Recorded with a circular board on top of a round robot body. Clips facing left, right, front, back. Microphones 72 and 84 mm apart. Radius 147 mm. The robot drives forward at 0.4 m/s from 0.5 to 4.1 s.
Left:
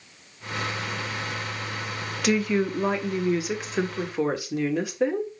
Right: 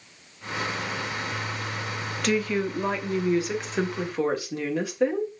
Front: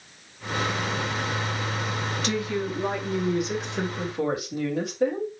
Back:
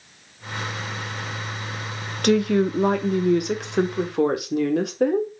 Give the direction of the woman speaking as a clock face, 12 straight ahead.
6 o'clock.